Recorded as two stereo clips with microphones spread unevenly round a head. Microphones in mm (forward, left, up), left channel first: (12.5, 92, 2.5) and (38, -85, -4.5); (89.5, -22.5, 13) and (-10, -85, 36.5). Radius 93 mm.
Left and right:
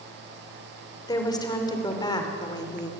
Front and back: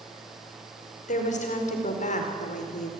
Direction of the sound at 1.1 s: 30° left.